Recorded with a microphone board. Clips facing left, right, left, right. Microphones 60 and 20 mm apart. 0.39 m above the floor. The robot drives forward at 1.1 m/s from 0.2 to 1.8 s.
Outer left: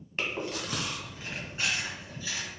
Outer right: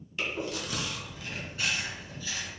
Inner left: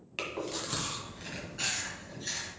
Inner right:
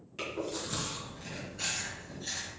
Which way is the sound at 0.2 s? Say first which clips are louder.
Even, inner left 1 dB; 45° left (ahead or behind).